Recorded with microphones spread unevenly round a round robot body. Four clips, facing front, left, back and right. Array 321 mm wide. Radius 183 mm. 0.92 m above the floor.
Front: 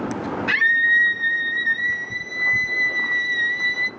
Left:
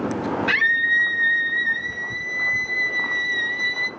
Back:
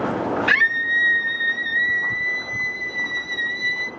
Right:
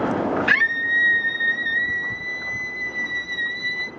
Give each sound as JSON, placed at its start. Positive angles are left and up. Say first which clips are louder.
{"t": 0.5, "sound": "a scream", "louder": "even, even", "azimuth_deg": -60, "distance_m": 1.6}